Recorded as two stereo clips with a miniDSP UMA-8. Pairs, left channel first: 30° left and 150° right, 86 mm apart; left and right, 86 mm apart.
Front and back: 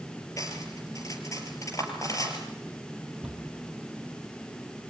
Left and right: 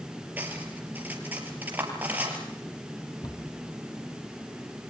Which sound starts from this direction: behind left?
A cupboard door, at 3.2 s.